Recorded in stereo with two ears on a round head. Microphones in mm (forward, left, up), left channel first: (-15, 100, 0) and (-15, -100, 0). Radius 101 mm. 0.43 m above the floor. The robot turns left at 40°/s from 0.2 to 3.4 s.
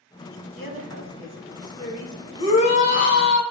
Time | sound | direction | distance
0.6 | a woman speaking | 135° left | 4 m
2.4 | a shout | 150° left | 3 m